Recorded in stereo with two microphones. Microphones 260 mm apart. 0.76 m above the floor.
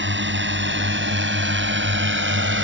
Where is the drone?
45° right (ahead or behind); by 2.6 s 50° right (ahead or behind).